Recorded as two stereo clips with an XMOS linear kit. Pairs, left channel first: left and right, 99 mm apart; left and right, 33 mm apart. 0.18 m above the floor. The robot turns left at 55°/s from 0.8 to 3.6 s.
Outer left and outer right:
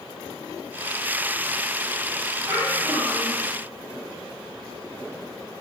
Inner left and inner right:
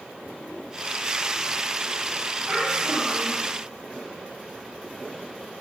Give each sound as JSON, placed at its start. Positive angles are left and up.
{"t": 2.5, "sound": "a child speaking", "azimuth_deg": -110, "distance_m": 1.5}